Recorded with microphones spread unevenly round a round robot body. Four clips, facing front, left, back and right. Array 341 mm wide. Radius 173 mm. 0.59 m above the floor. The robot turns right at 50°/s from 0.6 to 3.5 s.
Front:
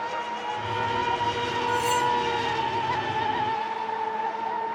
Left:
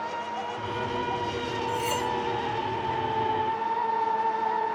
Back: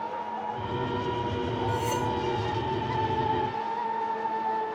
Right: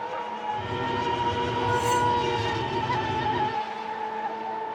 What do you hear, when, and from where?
1.7 s cutlery clinking: 65° left, 3.5 m; by 2.1 s 85° left, 3.5 m